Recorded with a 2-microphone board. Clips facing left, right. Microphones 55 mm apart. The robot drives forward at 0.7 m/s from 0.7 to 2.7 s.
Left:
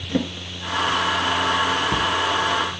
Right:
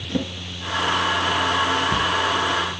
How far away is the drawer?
About 0.9 m.